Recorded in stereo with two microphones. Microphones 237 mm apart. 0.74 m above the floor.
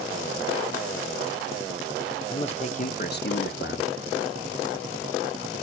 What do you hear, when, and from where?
2.3 s a man speaking: 25° left (ahead or behind), 1.9 m; by 3.9 s 50° left (ahead or behind), 1.3 m